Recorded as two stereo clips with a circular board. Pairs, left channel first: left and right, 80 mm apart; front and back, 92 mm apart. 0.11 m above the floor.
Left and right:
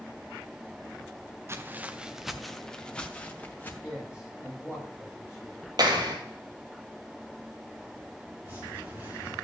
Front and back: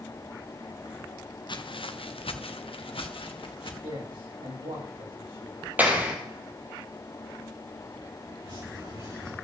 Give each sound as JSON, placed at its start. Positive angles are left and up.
{"t": 1.5, "sound": "footsteps", "azimuth_deg": -30, "distance_m": 1.1}
{"t": 3.8, "sound": "a man speaking", "azimuth_deg": -170, "distance_m": 8.0}
{"t": 5.8, "sound": "a clap", "azimuth_deg": -110, "distance_m": 2.5}
{"t": 8.4, "sound": "dripping", "azimuth_deg": -150, "distance_m": 8.0}